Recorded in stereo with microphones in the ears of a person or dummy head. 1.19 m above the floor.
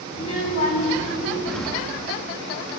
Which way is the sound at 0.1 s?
45° left (ahead or behind).